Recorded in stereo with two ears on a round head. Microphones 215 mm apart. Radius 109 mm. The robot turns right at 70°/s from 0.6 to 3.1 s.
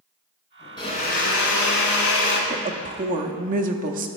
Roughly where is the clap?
I don't hear a clap.